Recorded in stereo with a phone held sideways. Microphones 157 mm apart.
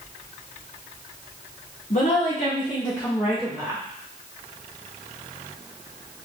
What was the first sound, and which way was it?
A woman speaking, 50° left (ahead or behind).